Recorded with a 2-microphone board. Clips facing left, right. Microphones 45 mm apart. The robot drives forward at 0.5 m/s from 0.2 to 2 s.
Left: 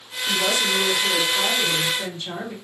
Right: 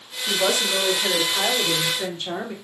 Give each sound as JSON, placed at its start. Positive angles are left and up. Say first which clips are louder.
{"t": 0.3, "sound": "a woman speaking", "louder": "even", "side_deg": -60, "distance_m": 2.5}